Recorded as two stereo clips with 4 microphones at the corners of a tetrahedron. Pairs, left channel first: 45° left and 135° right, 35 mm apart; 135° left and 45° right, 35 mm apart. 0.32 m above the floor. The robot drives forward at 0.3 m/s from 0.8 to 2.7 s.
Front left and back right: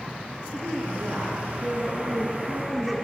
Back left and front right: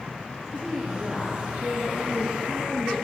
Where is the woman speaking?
145° right, 4.5 m; by 3.0 s 150° right, 5 m.